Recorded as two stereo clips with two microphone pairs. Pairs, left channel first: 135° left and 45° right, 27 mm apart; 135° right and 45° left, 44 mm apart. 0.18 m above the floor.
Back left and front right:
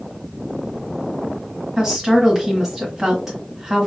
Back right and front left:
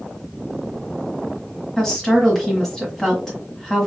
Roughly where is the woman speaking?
Right.